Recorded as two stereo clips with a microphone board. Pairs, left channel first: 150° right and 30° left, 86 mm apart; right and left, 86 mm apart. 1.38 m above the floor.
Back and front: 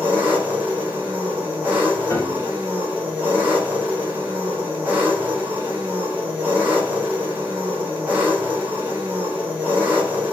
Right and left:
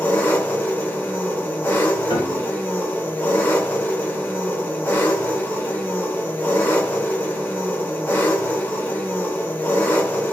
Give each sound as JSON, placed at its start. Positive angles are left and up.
{"t": 0.0, "sound": "an engine running", "azimuth_deg": -35, "distance_m": 1.0}
{"t": 2.1, "sound": "a piano", "azimuth_deg": -100, "distance_m": 0.6}